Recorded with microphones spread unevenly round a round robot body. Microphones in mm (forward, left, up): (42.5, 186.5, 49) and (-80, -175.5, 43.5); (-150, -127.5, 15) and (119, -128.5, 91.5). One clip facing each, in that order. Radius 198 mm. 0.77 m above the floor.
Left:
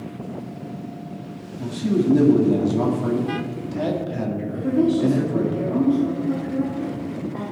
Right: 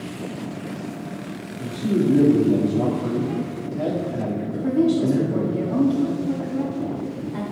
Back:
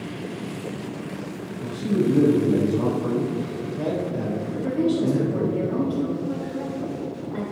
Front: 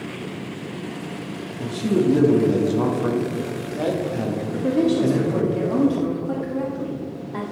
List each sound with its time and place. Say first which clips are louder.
1.6 s a man speaking: even, front 3 dB; 10° left, 1.6 m
4.5 s a woman speaking: even, front 3 dB; 30° right, 1.3 m